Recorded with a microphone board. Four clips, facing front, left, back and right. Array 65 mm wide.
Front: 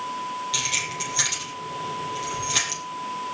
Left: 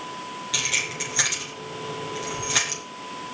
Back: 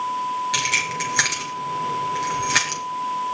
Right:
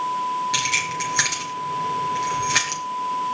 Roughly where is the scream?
I don't hear a scream.